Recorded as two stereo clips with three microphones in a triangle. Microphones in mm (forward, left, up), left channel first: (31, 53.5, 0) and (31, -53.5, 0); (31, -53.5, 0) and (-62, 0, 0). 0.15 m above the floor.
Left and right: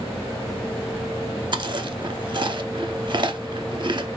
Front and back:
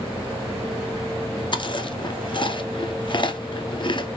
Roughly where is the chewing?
Ahead right.